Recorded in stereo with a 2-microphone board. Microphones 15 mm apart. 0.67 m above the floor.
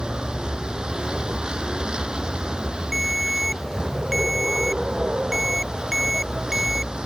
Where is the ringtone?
Centre (ahead or behind).